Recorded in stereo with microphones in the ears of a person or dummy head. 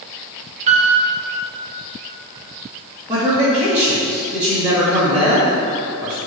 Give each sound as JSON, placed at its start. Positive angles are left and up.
{"t": 0.7, "sound": "a piano", "side_deg": -40, "distance_m": 1.2}
{"t": 3.1, "sound": "a man speaking", "side_deg": -15, "distance_m": 2.5}